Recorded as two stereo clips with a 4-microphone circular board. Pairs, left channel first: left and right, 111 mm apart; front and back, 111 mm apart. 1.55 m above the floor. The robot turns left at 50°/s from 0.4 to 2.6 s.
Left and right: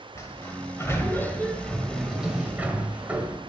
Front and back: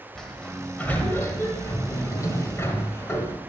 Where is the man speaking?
No man speaking in this recording.